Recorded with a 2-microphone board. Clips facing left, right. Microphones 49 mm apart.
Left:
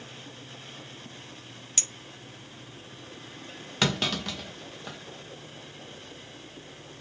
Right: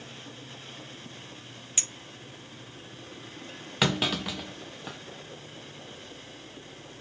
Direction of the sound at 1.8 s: 20° right (ahead or behind).